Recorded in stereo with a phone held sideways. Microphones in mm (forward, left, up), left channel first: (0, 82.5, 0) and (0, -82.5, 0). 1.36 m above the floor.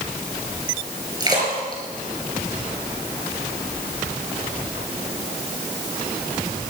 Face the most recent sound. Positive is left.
turn(degrees=-25)  # may be behind; listen again after turning